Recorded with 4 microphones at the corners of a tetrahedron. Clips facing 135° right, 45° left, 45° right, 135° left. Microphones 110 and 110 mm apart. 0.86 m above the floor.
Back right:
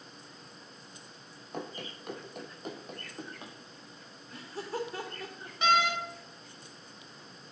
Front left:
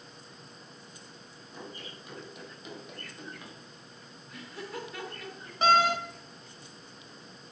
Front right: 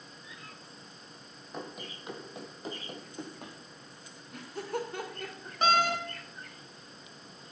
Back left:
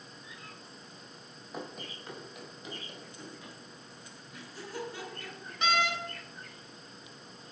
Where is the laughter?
75° right, 2 m.